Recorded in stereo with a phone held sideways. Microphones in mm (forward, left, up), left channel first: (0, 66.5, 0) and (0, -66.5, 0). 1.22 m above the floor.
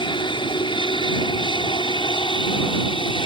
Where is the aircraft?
35° left (ahead or behind); by 3.3 s 40° left (ahead or behind).